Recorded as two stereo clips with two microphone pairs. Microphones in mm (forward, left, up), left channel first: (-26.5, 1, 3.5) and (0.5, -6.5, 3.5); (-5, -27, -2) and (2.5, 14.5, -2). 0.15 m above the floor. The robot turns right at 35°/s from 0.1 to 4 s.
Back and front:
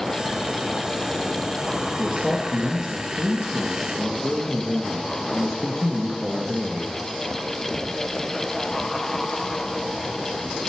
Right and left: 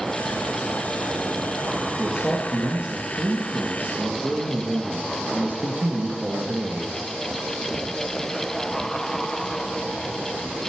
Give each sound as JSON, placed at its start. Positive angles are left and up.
{"t": 2.0, "sound": "a man speaking", "azimuth_deg": 20, "distance_m": 1.9}